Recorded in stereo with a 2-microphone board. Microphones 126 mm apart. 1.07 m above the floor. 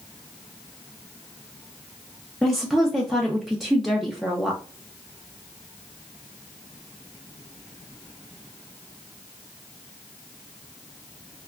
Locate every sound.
2.4 s a woman speaking: centre (ahead or behind), 0.5 m